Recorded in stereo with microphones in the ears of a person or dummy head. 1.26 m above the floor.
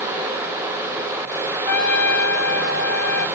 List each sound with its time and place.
1.6 s a trumpet: 15° left (ahead or behind), 1.3 m